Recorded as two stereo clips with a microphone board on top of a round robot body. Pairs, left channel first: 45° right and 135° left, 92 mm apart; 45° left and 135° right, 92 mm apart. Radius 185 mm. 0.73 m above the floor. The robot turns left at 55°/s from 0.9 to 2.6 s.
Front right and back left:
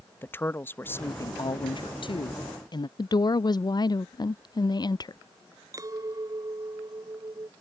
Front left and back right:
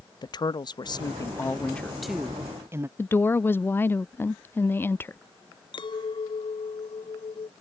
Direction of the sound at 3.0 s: 15° right.